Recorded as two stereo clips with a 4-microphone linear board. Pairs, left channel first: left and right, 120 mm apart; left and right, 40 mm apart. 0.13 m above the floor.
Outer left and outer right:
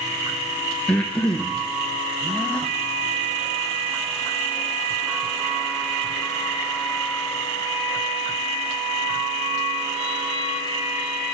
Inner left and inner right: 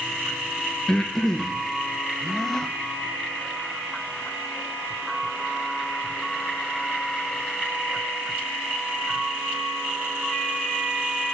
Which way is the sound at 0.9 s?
5° left (ahead or behind).